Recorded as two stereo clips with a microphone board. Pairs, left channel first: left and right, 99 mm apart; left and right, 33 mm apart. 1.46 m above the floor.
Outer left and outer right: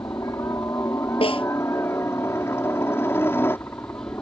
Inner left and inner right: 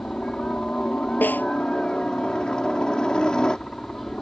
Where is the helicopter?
30° left (ahead or behind); by 4.2 s 20° left (ahead or behind).